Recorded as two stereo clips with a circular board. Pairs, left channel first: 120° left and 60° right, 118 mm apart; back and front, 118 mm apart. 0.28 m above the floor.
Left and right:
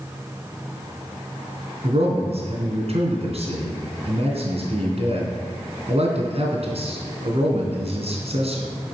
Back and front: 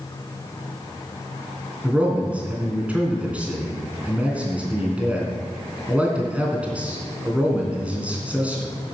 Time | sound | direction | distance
1.8 | a man speaking | 80° right | 3 m